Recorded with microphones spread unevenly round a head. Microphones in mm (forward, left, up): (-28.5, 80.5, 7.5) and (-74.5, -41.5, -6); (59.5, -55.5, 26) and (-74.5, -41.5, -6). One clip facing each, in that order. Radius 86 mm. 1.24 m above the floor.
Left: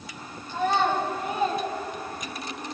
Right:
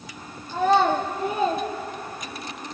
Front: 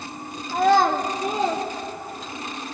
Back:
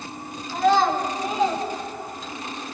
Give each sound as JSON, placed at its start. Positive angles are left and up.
{"t": 0.5, "sound": "a child speaking", "azimuth_deg": -45, "distance_m": 1.6}